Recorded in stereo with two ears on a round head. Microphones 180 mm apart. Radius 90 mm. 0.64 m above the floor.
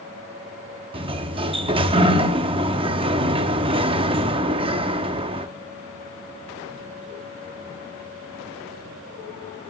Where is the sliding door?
25° right (ahead or behind), 0.5 m.